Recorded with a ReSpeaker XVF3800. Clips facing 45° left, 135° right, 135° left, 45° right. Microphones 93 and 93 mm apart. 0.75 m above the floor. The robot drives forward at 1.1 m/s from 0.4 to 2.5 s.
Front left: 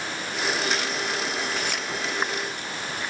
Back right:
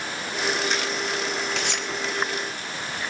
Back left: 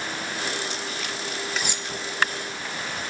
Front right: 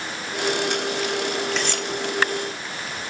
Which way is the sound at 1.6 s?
140° right.